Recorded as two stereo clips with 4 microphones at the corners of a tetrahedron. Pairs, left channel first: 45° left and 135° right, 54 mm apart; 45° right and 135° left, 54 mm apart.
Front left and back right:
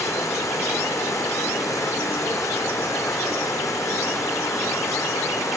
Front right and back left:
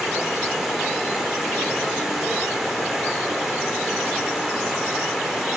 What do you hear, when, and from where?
0.0 s running water: 50° left, 4.5 m